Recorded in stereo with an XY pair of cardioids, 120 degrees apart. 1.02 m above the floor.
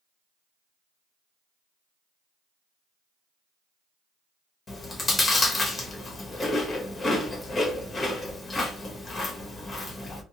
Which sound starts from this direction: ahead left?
Chewing, at 4.7 s.